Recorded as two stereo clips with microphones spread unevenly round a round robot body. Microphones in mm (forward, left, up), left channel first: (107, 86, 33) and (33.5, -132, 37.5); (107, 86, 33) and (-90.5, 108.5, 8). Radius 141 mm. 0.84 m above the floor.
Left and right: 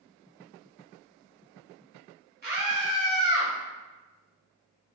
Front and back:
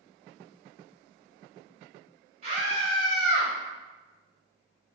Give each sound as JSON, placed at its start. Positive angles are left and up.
{"t": 2.4, "sound": "a scream", "azimuth_deg": -140, "distance_m": 1.3}